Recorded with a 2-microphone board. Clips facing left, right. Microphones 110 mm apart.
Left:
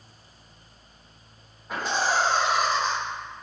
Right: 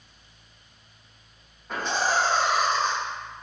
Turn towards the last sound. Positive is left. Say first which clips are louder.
# even
turn(degrees=5)  # may be behind; listen again after turning